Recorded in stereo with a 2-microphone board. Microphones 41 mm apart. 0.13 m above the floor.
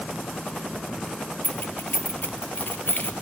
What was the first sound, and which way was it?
Keys jangling, 50° left (ahead or behind).